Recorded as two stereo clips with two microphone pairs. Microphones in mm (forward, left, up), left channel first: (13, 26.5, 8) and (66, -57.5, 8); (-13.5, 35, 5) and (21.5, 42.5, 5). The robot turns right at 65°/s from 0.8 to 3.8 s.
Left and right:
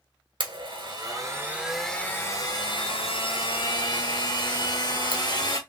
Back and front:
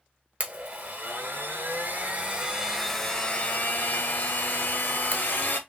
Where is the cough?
No cough in this recording.